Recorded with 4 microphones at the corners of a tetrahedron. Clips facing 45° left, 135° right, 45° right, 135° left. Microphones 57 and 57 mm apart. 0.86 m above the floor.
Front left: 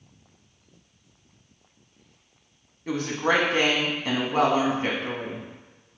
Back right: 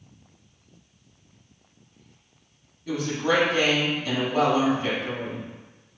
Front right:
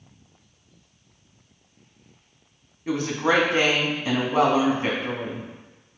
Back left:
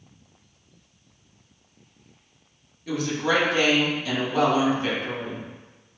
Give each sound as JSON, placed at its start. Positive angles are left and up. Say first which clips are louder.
{"t": 2.9, "sound": "a woman speaking", "louder": "even, front right 2 dB", "azimuth_deg": 10, "distance_m": 1.0}